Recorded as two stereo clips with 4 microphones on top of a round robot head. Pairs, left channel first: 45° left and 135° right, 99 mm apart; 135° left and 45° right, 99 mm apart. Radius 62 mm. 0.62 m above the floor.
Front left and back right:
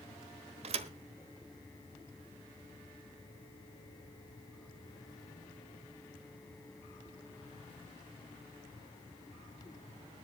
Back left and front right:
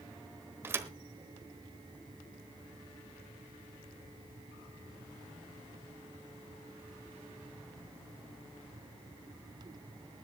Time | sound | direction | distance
0.6 | a thud | 110° right | 1.0 m